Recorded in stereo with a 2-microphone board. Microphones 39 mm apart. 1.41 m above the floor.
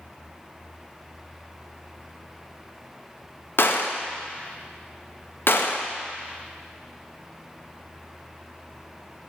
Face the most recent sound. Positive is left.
turn(degrees=65)  # may be behind; listen again after turning